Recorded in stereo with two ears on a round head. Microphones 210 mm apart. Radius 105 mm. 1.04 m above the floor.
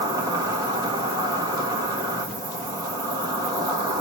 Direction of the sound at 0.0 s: 15° right (ahead or behind).